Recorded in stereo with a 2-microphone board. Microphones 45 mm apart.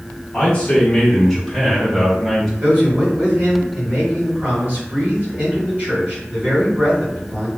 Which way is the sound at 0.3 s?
25° left (ahead or behind).